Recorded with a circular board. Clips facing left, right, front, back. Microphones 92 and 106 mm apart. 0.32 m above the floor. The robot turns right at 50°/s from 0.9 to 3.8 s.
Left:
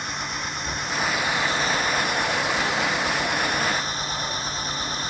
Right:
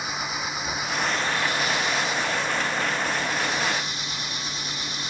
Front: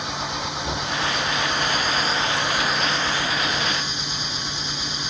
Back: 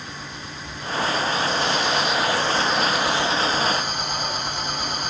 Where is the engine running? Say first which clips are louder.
Even, front 8 dB; 5° right; by 5.1 s 140° left.